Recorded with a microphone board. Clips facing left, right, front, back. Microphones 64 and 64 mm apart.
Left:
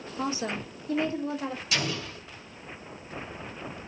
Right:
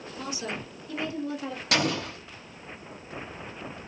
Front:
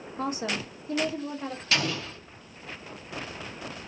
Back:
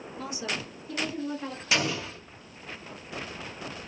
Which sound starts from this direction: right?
An explosion, at 1.7 s.